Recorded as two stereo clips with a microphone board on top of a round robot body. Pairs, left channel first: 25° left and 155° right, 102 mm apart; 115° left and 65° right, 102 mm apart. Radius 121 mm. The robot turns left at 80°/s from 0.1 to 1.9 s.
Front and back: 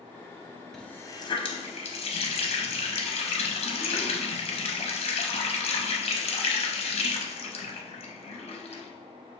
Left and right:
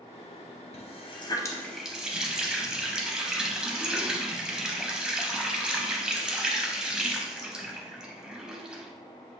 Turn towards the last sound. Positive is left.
turn(degrees=15)